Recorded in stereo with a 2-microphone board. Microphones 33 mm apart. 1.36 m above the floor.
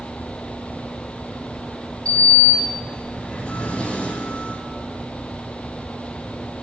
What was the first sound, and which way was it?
A sliding door, 30° left (ahead or behind).